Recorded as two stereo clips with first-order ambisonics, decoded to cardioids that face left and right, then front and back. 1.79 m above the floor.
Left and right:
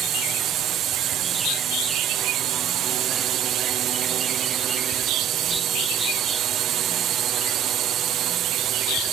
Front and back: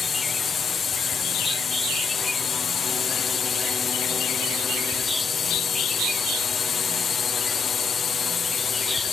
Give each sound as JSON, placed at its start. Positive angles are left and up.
{"t": 0.0, "sound": "a drone", "azimuth_deg": -60}